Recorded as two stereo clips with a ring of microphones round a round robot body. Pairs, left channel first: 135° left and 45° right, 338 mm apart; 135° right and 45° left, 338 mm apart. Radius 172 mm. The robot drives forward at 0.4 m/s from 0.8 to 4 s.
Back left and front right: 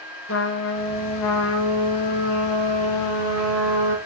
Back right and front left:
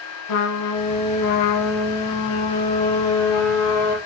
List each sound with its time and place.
0.3 s a trumpet: 170° right, 1.3 m; by 4.0 s 175° right, 2.5 m